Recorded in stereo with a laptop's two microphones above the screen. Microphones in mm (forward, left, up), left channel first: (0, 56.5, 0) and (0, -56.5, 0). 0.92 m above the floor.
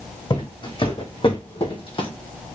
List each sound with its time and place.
0.3 s footsteps: 45° left (ahead or behind), 2 m; by 2.1 s 50° left (ahead or behind), 1.5 m